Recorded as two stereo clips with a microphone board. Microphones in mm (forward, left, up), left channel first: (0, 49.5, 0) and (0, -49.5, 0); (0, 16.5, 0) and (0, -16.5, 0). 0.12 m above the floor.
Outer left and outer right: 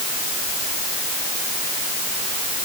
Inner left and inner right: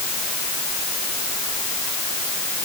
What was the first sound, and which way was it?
Only background noise.